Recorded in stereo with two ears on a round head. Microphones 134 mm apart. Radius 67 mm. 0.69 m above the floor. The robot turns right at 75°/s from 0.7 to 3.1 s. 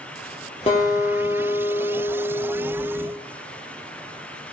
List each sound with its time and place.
0.7 s a guitar: 35° left, 3 m; by 3.1 s 145° right, 3 m